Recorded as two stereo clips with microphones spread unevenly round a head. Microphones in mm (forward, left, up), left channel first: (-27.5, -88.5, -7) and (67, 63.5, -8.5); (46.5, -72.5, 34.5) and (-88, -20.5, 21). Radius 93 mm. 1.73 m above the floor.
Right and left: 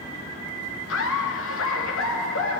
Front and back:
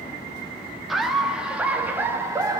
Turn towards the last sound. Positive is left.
turn(degrees=-130)